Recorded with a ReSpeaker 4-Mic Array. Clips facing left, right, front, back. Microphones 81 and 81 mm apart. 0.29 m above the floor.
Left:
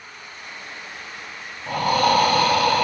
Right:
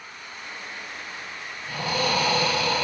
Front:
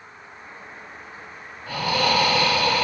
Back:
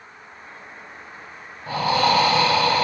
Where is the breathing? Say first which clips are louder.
Left 8 dB, back 3 dB; 120° left, 1.3 m.